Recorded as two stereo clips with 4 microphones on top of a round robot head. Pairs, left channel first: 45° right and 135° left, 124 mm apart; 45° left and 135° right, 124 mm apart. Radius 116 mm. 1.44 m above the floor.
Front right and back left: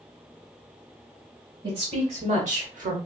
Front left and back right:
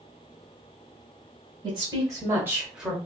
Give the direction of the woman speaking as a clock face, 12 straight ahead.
6 o'clock.